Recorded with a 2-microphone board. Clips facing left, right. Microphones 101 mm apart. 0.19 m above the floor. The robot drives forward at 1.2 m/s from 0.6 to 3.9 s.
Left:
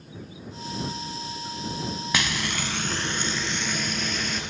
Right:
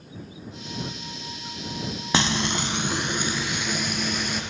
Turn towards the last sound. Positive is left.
turn(degrees=-10)  # may be behind; listen again after turning